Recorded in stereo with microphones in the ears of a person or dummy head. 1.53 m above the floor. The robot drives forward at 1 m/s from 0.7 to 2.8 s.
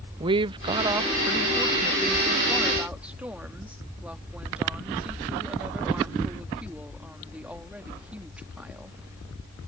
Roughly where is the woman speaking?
Right.